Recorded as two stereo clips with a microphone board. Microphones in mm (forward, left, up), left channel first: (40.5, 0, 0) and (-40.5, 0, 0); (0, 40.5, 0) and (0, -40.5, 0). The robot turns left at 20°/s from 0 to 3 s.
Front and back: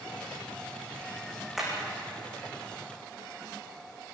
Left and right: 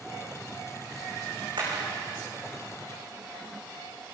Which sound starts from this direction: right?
Hammering, at 1.6 s.